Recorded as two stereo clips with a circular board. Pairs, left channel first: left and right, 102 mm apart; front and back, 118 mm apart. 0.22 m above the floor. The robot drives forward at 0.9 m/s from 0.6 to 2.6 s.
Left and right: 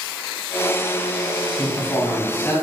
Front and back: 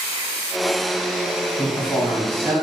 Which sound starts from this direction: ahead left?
A man speaking, at 1.6 s.